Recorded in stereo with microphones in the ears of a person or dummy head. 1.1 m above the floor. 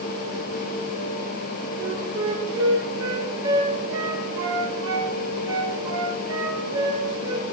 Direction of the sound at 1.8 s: 20° right (ahead or behind).